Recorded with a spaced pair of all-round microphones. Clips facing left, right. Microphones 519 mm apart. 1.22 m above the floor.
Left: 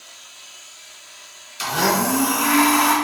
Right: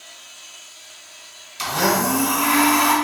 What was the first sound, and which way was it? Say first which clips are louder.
A blender: even; 20° right (ahead or behind).